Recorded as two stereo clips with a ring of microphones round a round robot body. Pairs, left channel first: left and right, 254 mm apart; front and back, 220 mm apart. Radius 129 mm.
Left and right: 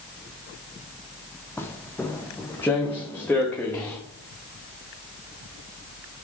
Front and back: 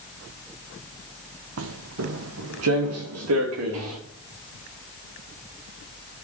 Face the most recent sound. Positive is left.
turn(degrees=175)